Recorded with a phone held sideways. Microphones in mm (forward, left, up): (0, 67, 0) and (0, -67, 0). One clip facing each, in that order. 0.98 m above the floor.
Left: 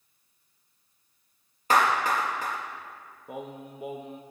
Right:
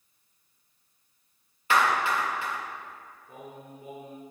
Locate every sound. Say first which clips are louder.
1.7 s a clap: left 1 dB; 40° left (ahead or behind), 1.3 m
3.3 s singing: left 6 dB; 80° left, 0.7 m